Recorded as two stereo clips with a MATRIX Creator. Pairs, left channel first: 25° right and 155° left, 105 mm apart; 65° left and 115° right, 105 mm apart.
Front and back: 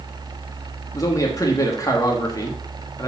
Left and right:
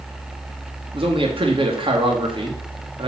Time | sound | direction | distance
0.9 | a man speaking | 80° right | 1.9 m